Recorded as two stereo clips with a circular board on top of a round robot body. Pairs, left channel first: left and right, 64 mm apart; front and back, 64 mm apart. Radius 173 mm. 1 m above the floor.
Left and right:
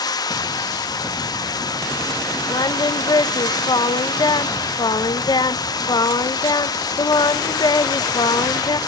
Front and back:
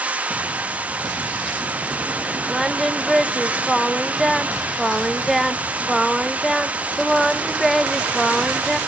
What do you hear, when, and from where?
0.0 s running water: 110° left, 1.1 m
2.5 s singing: 90° left, 0.9 m